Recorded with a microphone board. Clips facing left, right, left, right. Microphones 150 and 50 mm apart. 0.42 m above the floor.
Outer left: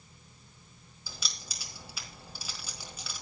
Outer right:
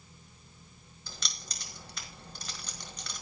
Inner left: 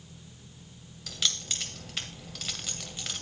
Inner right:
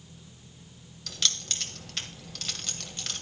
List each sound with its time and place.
1.1 s keys jangling: 5° left (ahead or behind), 1.6 m